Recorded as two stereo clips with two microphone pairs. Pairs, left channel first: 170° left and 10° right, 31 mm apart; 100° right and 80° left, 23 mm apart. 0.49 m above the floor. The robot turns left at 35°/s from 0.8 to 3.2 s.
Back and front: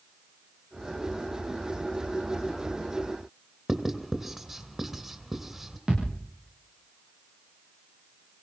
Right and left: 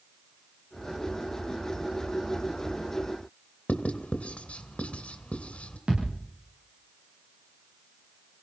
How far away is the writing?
About 2.5 m.